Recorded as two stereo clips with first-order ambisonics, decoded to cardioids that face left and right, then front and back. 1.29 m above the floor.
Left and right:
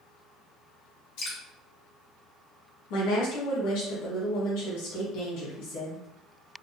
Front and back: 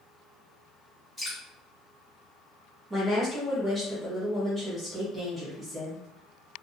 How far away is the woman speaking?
About 1.7 m.